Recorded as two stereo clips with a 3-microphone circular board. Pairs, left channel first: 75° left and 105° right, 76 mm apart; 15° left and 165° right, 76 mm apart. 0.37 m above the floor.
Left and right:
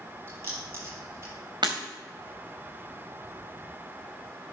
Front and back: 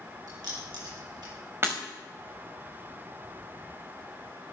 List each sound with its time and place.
0.3 s keys jangling: 160° right, 6 m; by 1.3 s 155° right, 6.5 m
1.6 s breaking glass: 110° right, 3.5 m